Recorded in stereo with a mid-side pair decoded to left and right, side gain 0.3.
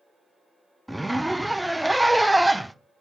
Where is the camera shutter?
No camera shutter in this recording.